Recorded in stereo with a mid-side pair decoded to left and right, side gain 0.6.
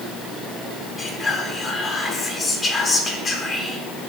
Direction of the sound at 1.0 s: 30° left.